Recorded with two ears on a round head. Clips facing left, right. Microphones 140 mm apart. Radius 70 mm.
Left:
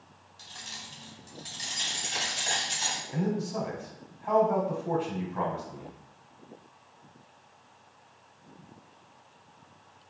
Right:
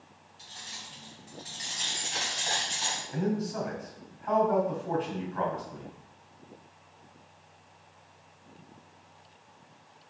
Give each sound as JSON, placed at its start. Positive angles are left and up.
{"t": 0.4, "sound": "keys jangling", "side_deg": 70, "distance_m": 1.8}
{"t": 3.1, "sound": "a man speaking", "side_deg": 20, "distance_m": 2.5}